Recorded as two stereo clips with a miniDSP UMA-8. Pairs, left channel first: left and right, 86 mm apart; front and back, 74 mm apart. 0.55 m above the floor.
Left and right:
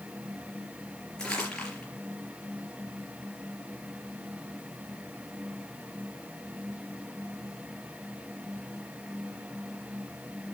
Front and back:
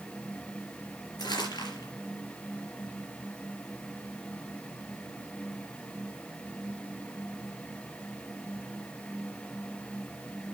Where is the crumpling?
10° left, 4.5 m.